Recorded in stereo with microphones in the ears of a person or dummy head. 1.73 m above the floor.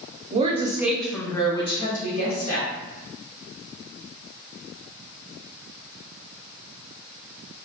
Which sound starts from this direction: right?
A woman speaking, at 0.3 s.